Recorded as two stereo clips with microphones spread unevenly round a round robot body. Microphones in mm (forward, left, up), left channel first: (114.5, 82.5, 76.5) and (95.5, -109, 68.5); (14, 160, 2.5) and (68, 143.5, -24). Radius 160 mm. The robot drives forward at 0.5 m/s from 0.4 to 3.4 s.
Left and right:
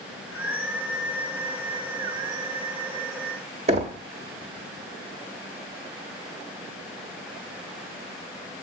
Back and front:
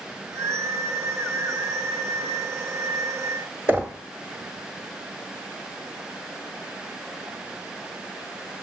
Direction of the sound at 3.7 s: 120° right.